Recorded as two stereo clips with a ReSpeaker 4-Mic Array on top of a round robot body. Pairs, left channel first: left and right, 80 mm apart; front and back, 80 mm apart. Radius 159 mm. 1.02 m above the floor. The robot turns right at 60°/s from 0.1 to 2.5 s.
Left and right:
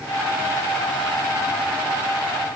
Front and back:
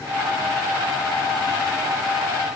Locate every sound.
Only background noise.